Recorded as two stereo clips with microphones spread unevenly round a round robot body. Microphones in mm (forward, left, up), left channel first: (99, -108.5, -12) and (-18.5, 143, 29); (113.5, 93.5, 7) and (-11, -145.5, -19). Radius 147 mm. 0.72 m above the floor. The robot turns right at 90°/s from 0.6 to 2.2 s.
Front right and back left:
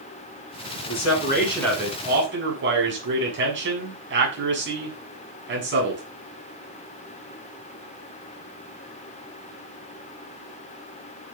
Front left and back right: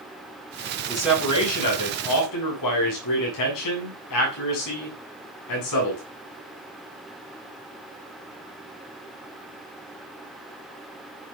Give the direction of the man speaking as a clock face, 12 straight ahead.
2 o'clock.